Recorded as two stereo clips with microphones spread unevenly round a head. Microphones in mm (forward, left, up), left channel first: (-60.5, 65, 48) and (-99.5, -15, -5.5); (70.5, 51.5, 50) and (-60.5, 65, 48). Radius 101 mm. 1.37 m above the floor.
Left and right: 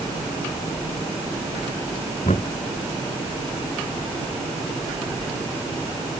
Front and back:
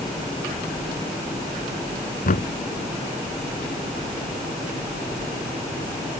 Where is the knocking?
15° left.